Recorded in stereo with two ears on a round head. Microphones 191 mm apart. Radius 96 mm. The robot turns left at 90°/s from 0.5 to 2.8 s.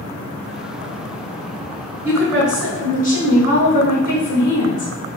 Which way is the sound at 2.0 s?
160° right.